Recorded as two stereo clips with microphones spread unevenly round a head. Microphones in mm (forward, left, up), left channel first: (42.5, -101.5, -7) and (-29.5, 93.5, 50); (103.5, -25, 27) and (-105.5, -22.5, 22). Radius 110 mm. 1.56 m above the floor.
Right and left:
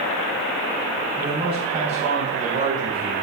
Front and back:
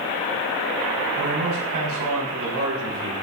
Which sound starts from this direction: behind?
A man speaking, at 1.1 s.